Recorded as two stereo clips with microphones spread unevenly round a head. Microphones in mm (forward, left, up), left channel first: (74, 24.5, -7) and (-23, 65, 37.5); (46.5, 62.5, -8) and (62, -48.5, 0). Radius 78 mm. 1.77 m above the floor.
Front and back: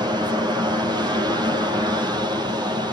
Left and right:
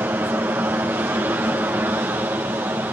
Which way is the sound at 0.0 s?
140° right.